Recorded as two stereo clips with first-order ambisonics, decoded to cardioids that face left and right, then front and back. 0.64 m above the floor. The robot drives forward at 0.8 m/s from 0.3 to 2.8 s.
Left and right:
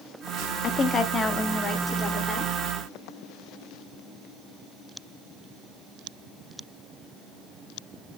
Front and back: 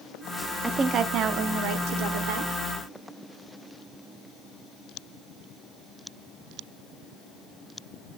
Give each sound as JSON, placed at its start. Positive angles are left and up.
{"t": 0.6, "sound": "a woman speaking", "azimuth_deg": 110, "distance_m": 0.6}